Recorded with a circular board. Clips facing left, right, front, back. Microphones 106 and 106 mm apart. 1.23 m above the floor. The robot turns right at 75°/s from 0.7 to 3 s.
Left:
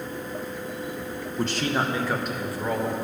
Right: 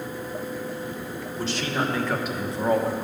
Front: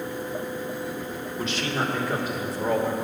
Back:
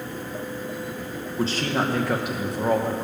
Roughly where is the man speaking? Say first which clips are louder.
Left 2 dB, back 4 dB; behind left.